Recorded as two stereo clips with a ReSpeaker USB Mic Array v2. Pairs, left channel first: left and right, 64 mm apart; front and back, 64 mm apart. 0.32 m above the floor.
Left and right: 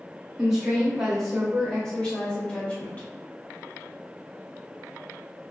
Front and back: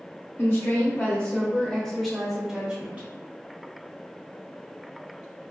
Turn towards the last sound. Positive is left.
turn(degrees=130)